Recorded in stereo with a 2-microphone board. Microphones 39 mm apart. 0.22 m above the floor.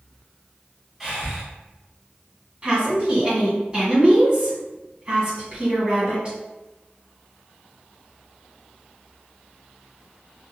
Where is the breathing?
10° right (ahead or behind), 1.2 m.